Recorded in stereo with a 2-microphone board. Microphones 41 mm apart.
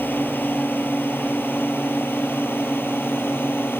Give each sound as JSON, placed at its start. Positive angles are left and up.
{"t": 0.0, "sound": "a drone", "side_deg": 50}